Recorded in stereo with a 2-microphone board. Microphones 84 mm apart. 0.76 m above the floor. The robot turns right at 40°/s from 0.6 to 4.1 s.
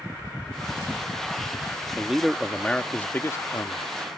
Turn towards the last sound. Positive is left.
turn(degrees=70)